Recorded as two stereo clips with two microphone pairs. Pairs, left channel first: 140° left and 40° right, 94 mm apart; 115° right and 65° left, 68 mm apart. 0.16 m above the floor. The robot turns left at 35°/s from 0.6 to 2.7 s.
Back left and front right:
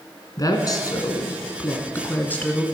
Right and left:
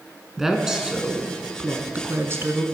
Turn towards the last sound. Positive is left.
turn(degrees=65)